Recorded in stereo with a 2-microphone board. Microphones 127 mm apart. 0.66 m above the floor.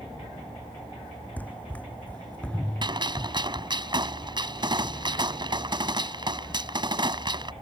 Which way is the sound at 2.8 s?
35° right (ahead or behind).